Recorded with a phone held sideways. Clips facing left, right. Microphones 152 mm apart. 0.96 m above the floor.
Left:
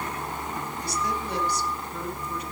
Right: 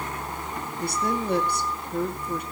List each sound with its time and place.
0.8 s a woman speaking: 60° right (ahead or behind), 2 m